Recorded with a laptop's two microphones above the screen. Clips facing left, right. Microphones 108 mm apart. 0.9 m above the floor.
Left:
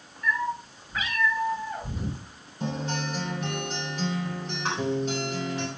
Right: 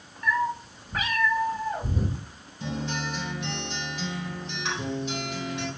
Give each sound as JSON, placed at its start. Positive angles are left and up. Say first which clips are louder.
{"t": 0.2, "sound": "a cat meowing", "louder": "right 2 dB", "side_deg": -80, "distance_m": 1.8}
{"t": 2.6, "sound": "a guitar", "louder": "left 1 dB", "side_deg": 45, "distance_m": 3.5}